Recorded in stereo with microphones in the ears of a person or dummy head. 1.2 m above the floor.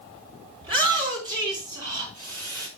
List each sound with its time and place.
0.6 s a shout: 30° right (ahead or behind), 3.5 m; by 2.7 s 25° right (ahead or behind), 4.5 m